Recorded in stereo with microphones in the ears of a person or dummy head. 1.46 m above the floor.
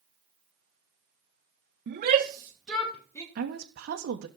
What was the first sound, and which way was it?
A shout, 55° right (ahead or behind).